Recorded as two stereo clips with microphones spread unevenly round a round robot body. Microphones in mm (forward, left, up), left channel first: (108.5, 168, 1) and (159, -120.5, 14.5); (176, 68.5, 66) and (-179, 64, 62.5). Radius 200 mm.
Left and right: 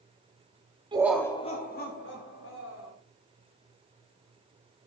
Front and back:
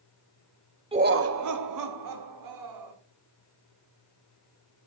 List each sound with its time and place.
0.9 s laughter: 130° right, 0.8 m; by 2.9 s 155° left, 3 m